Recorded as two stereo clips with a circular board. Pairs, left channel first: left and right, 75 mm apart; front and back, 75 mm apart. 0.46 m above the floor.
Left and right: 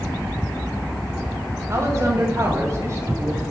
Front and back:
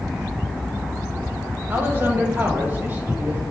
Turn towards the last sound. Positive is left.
turn(degrees=-125)